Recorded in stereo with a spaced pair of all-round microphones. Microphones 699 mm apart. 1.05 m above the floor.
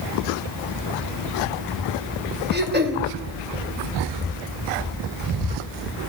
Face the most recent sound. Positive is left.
turn(degrees=-15)  # may be behind; listen again after turning